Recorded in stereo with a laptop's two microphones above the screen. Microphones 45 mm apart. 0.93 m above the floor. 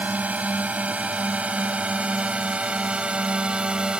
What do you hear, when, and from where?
0.0 s a drone: 35° right (ahead or behind); by 4.0 s 20° right (ahead or behind)